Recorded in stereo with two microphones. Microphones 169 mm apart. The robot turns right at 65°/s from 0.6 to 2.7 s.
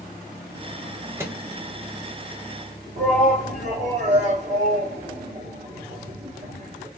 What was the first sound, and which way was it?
A microwave, 15° right (ahead or behind).